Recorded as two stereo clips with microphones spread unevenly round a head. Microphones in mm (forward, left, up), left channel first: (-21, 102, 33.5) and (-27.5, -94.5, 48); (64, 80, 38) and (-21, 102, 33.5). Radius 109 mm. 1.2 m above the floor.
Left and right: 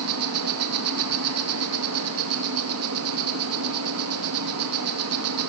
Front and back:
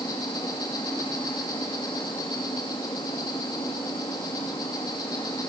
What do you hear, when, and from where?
0.0 s an insect: 80° right, 2.5 m